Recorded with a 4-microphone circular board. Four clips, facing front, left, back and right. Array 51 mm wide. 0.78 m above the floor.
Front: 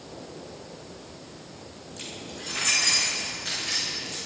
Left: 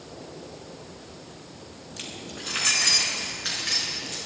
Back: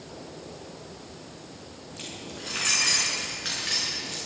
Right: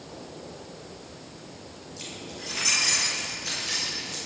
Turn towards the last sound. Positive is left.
turn(degrees=130)